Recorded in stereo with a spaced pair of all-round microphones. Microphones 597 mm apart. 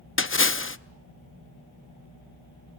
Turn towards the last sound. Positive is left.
turn(degrees=20)  # may be behind; listen again after turning